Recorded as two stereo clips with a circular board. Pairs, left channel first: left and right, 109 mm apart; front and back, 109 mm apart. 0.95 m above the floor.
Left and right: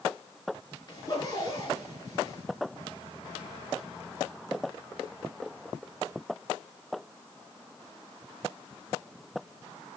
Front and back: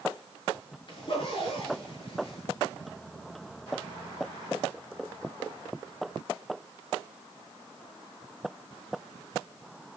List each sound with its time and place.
0.9 s a zipper: 40° left, 7 m